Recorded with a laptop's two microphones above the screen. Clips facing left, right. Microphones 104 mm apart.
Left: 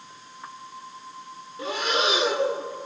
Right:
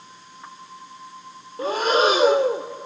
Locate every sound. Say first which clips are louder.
1.6 s breathing: right 7 dB; 40° right (ahead or behind), 0.7 m